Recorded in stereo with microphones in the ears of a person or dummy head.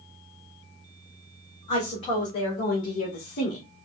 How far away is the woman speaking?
About 1.9 m.